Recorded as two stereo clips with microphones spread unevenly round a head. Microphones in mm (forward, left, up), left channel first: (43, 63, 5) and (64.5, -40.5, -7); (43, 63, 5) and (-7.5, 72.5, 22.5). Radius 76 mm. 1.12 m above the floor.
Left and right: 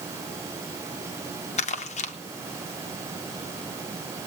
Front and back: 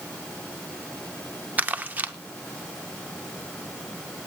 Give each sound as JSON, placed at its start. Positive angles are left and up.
{"t": 1.6, "sound": "crumpling", "azimuth_deg": 100, "distance_m": 1.1}